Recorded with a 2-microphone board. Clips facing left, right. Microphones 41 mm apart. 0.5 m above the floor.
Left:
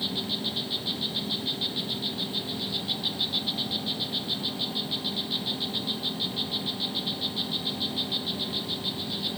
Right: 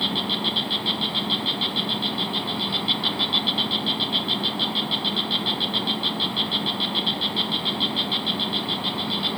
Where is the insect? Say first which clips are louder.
Right 7 dB; 70° right (ahead or behind).